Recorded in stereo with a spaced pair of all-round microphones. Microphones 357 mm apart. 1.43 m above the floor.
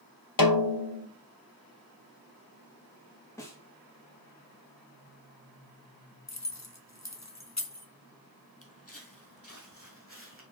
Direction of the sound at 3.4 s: 10° left (ahead or behind).